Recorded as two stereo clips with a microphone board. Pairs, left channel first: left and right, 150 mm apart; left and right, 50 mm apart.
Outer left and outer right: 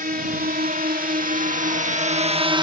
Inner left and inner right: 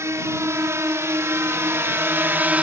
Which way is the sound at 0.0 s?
75° right (ahead or behind).